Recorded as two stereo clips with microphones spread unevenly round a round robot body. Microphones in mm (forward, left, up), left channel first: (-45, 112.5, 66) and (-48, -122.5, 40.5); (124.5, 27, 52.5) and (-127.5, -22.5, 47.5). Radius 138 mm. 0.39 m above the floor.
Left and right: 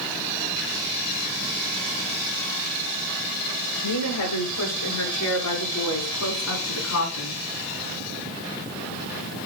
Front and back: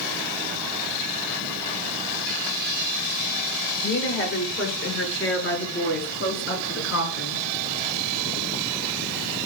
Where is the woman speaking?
60° left, 7.5 m; by 7.4 s 50° left, 5.5 m.